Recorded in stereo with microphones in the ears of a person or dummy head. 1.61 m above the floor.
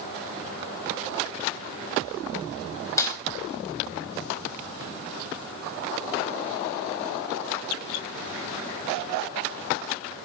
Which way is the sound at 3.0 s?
15° left (ahead or behind).